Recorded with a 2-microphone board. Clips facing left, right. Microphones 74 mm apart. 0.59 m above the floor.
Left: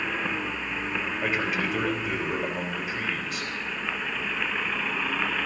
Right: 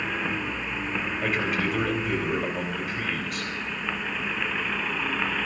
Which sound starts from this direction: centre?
A man speaking, at 1.2 s.